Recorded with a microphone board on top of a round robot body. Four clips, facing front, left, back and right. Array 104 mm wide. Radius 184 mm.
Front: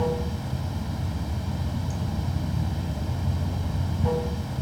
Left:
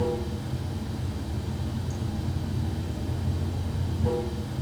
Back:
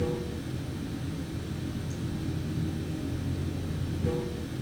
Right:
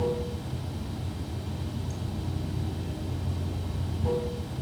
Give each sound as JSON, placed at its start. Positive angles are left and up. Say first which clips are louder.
{"t": 0.0, "sound": "running water", "louder": "left 1 dB, front 4 dB", "azimuth_deg": 0, "distance_m": 3.0}